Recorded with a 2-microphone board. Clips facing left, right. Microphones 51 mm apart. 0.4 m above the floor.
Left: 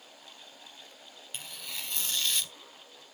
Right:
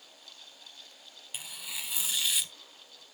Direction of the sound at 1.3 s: 10° right (ahead or behind).